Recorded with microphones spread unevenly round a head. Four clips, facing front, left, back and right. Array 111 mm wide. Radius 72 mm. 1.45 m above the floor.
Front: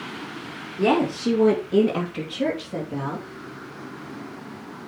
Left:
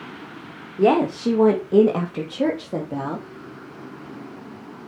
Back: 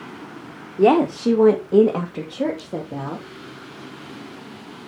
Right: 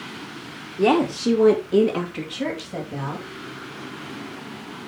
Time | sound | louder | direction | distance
0.8 | a woman speaking | left 1 dB, back 5 dB | 175° left | 2 m